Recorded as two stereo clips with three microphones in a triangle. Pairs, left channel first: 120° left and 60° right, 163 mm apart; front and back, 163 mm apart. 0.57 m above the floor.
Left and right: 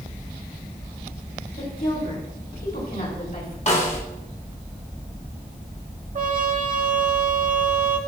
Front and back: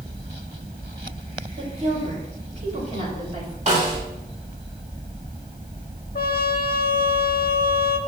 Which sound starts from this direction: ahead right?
A trumpet, at 6.2 s.